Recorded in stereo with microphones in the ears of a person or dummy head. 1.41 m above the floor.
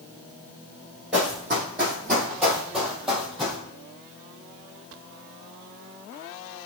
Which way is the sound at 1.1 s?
5° right (ahead or behind).